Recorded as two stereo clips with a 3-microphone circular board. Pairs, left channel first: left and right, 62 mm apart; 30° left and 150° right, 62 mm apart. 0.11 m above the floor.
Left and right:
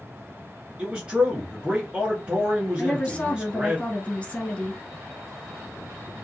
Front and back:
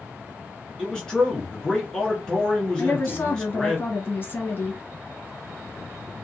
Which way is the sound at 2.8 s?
30° left.